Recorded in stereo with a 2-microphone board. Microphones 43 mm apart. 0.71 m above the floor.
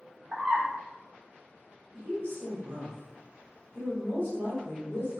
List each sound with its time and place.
0.3 s a bird: 50° right (ahead or behind), 0.7 m
1.9 s a woman speaking: 60° right (ahead or behind), 1.2 m